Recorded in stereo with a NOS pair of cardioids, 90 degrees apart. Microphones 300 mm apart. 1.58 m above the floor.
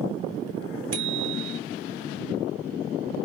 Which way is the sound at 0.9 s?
65° right.